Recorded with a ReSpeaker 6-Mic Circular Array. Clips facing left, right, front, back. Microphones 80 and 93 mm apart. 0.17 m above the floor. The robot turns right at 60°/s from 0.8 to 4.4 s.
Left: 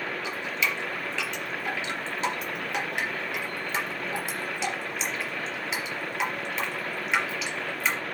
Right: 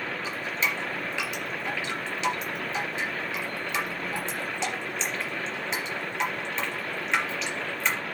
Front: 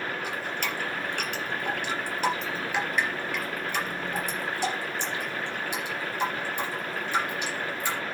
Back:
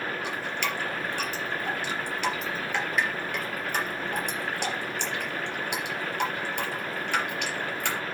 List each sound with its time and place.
0.2 s dripping: 40° right, 3.5 m; by 8.0 s 175° left, 3.5 m